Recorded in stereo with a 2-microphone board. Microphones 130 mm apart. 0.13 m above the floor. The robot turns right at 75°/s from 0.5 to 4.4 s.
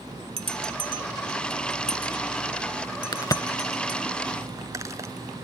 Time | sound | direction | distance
0.4 | a bell | 45° right (ahead or behind) | 0.8 m
3.1 | a crack | 35° left (ahead or behind) | 0.7 m